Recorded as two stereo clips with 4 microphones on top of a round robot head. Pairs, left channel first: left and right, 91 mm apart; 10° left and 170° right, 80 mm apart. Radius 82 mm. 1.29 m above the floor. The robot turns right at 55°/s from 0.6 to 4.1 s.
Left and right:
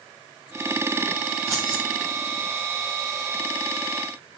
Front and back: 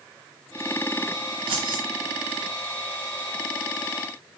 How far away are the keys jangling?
About 2.5 m.